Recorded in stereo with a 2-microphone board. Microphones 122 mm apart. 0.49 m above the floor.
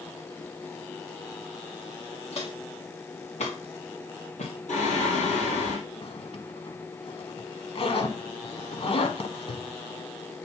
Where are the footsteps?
60° left (ahead or behind), 3.5 m; by 5.3 s 70° left (ahead or behind), 2 m.